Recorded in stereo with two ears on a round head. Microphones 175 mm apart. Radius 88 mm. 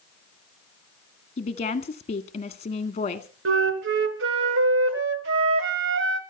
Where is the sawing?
I don't hear sawing.